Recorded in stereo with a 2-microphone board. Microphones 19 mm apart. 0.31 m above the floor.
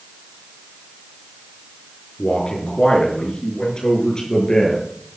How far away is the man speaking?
About 5.5 m.